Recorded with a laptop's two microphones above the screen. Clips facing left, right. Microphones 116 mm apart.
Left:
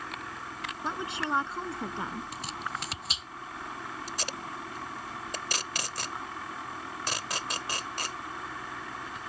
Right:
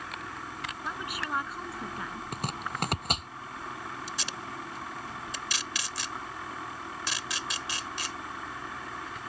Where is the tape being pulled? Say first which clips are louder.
Left 1 dB; 45° left (ahead or behind).